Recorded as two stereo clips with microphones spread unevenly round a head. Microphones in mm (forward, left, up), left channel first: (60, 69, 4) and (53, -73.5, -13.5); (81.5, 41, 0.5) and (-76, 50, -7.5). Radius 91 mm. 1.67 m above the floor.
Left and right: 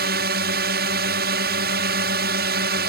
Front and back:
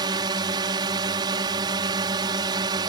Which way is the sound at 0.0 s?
115° right.